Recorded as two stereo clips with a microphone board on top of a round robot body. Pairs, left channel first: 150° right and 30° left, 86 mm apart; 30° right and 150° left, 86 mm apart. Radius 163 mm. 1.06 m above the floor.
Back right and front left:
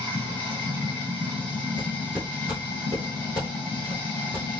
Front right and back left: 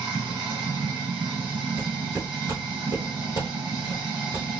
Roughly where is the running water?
Behind.